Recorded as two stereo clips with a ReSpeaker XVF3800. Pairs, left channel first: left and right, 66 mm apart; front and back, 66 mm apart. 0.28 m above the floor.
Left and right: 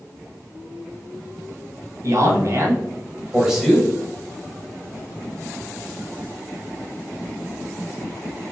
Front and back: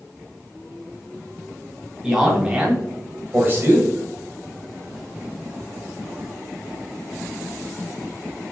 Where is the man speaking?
100° right, 1.8 m; by 3.9 s 165° left, 1.2 m.